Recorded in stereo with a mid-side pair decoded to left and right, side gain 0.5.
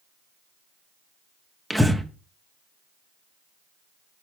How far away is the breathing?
About 1.1 m.